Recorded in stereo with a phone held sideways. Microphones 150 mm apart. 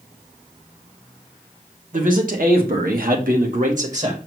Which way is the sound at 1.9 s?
65° right (ahead or behind).